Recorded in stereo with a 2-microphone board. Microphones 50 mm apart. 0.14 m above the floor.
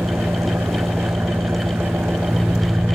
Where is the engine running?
55° right (ahead or behind).